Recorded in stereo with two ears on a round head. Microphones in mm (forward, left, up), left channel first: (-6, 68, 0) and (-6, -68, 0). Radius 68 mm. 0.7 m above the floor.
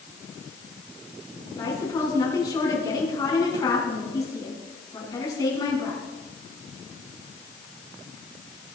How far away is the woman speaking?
About 7.5 m.